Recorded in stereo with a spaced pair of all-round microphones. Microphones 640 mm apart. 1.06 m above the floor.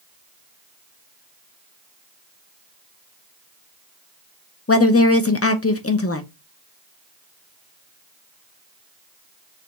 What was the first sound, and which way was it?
A woman speaking, 25° left (ahead or behind).